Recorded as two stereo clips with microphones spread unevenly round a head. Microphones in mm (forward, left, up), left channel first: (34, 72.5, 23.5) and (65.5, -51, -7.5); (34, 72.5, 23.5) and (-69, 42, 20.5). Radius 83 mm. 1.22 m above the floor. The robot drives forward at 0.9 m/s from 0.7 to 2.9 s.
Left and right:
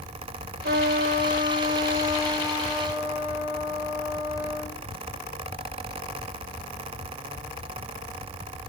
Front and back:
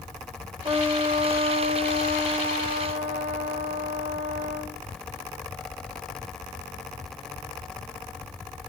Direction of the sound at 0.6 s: 95° right.